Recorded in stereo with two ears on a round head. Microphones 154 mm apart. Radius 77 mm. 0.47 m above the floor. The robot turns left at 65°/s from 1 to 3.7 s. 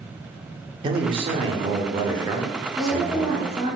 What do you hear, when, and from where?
0.8 s a man speaking: 55° right, 0.8 m; by 3.5 s 140° left, 0.8 m
2.7 s a woman speaking: 30° right, 1.6 m; by 3.8 s 90° right, 1.6 m